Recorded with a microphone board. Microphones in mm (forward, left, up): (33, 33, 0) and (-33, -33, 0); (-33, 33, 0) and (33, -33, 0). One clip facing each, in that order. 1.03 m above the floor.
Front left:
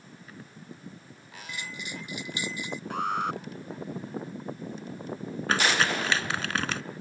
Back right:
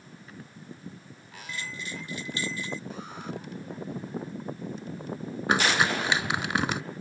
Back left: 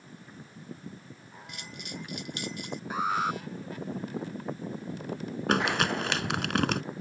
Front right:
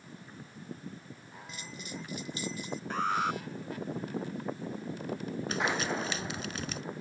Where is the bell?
115° left.